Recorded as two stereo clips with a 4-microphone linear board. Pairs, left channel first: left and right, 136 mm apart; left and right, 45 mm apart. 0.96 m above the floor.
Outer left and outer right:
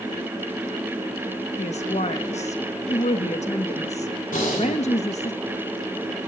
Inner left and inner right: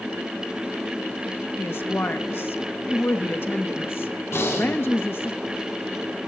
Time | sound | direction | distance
1.6 | a woman speaking | 55° left (ahead or behind) | 0.8 m
4.3 | breathing | 80° left | 3 m